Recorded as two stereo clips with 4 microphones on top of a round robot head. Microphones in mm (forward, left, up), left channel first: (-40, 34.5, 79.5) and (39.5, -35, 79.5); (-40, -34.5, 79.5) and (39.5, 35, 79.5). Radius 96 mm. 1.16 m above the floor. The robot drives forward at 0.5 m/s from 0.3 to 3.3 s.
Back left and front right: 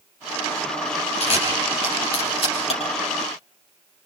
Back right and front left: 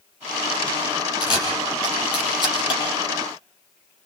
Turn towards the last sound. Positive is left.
turn(degrees=175)